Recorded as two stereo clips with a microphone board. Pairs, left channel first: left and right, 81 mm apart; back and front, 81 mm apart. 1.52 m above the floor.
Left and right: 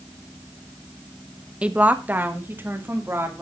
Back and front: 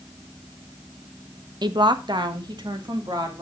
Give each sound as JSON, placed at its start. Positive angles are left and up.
{"t": 1.6, "sound": "a woman speaking", "azimuth_deg": -15, "distance_m": 1.0}